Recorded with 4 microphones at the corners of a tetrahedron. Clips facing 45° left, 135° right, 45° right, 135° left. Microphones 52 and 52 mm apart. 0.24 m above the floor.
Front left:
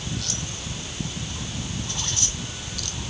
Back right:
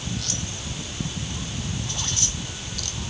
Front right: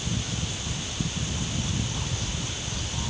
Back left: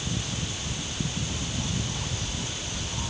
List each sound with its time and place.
Only background noise.